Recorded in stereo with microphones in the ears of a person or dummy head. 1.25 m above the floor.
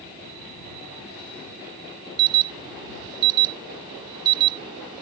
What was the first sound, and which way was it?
An alarm, 25° right (ahead or behind).